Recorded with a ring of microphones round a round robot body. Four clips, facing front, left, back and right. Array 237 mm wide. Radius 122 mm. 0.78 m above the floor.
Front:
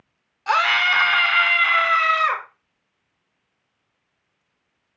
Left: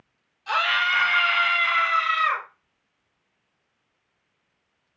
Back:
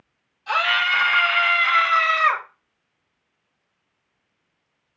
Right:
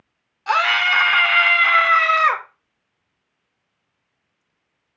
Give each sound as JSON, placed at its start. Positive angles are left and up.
{"t": 0.5, "sound": "a scream", "azimuth_deg": -45, "distance_m": 2.5}